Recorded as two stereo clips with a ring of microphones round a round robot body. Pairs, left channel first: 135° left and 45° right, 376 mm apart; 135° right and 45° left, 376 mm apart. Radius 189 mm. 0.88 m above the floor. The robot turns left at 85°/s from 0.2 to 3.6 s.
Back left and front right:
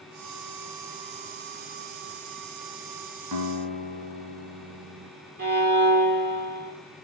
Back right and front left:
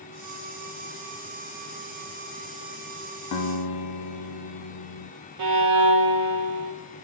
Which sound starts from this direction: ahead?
A violin, at 5.4 s.